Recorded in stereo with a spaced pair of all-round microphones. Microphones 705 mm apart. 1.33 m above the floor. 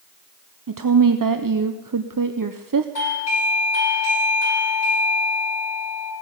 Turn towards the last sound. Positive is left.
turn(degrees=70)  # may be behind; listen again after turning